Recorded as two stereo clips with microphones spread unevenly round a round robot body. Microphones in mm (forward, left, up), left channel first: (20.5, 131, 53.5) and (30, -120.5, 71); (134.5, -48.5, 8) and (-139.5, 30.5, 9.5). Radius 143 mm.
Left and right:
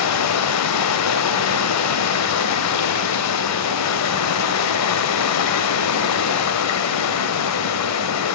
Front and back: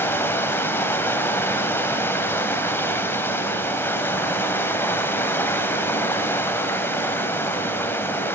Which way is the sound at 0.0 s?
65° left.